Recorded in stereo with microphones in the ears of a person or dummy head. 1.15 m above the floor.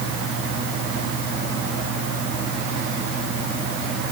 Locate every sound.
Only background noise.